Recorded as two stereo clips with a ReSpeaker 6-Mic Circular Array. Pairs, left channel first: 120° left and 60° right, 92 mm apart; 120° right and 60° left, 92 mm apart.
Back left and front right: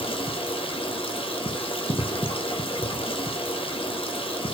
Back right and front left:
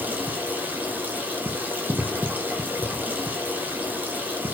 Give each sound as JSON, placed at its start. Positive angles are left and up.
{"t": 0.0, "sound": "running water", "azimuth_deg": 130, "distance_m": 0.8}